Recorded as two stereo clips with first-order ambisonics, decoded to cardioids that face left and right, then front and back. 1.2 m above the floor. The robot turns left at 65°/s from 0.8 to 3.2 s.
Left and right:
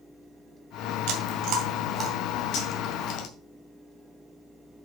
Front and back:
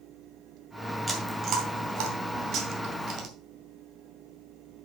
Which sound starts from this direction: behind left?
Cutlery clinking, at 2.5 s.